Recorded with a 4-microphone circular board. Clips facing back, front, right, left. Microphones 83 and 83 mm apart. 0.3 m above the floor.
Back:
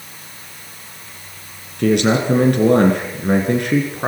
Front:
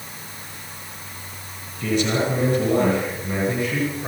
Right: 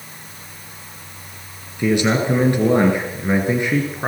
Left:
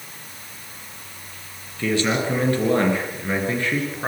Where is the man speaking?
165° right, 5 m.